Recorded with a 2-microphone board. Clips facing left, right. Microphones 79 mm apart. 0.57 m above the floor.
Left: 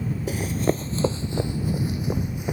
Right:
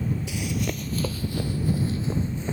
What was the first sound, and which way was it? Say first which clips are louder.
Running footsteps: left 5 dB; 45° left (ahead or behind).